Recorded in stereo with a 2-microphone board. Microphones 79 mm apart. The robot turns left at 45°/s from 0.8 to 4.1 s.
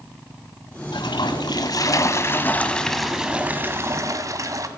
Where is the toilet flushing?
95° left, 1.3 m; by 4.7 s 50° right, 1.3 m.